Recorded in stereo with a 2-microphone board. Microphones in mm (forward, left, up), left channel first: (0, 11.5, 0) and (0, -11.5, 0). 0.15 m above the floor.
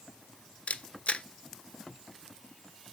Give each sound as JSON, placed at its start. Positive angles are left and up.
{"t": 0.7, "sound": "a camera shutter", "side_deg": 60, "distance_m": 0.7}